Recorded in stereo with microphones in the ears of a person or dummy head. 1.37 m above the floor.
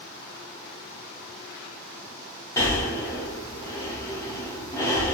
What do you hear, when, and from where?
2.6 s breathing: 20° left (ahead or behind), 0.8 m